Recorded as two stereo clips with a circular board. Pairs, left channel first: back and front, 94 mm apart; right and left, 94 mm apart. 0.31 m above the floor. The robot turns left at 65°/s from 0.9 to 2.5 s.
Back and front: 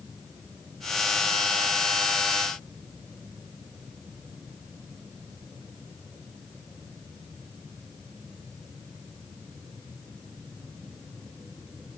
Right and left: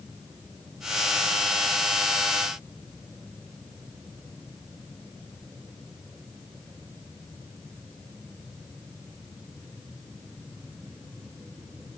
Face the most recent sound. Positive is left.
No sound to turn to.